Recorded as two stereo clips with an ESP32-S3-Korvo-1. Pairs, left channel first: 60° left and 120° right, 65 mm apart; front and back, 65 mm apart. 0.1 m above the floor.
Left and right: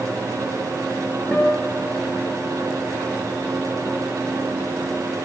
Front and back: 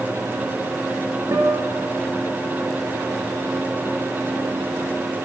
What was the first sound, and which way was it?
A guitar, 135° left.